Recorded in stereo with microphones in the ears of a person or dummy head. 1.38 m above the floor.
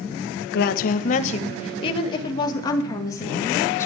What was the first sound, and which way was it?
A woman speaking, 55° left (ahead or behind).